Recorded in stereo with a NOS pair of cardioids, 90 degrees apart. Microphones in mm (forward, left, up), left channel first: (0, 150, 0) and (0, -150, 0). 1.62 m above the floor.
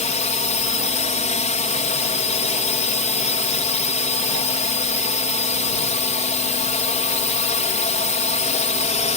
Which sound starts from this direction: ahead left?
A drone, at 0.0 s.